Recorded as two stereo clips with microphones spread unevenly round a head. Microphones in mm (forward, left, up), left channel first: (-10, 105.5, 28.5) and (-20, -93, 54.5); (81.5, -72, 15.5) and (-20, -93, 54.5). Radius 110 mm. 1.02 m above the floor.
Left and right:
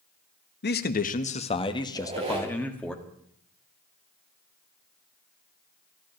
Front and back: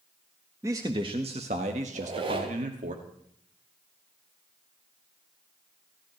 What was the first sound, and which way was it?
A man speaking, 115° left.